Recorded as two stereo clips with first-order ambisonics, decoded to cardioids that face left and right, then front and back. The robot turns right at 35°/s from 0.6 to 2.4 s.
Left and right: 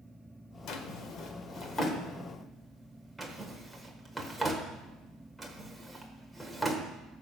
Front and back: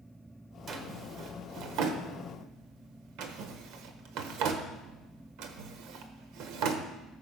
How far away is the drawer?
About 1.4 m.